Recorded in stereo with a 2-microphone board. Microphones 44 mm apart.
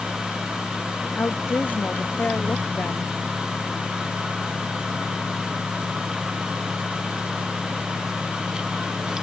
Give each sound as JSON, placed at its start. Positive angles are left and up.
{"t": 1.1, "sound": "a woman speaking", "side_deg": 45}